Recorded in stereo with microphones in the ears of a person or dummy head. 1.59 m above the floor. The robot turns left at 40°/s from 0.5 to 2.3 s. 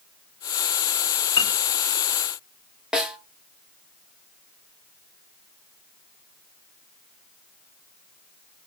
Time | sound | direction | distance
1.4 | a piano | 30° left (ahead or behind) | 0.7 m
2.9 | a snare drum | centre (ahead or behind) | 0.6 m